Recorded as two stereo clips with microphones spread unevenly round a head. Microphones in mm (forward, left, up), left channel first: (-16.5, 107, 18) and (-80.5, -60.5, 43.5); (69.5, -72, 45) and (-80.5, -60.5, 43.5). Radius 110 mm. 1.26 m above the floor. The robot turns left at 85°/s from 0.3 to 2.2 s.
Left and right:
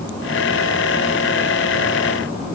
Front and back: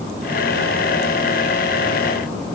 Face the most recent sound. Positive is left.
No sound to turn to.